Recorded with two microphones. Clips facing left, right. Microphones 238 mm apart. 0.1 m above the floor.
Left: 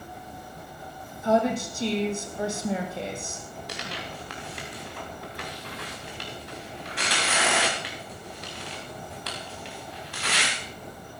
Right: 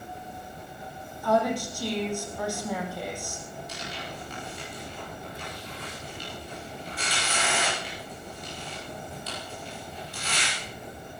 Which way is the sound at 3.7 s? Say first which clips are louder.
Left 1 dB; 75° left (ahead or behind).